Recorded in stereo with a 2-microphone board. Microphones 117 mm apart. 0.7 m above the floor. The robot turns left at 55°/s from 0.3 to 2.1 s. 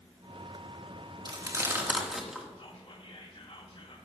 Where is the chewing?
40° right (ahead or behind), 1.5 m; by 2.5 s 5° right (ahead or behind), 1.5 m.